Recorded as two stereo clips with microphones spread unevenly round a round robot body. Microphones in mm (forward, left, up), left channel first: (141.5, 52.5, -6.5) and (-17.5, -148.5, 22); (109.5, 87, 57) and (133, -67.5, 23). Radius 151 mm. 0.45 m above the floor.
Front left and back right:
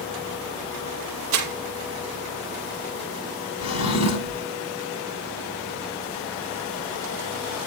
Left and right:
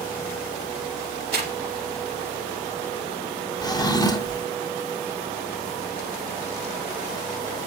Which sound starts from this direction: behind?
Crumpling, at 1.3 s.